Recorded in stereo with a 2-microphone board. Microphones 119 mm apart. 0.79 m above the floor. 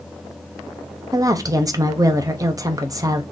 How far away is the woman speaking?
About 0.5 m.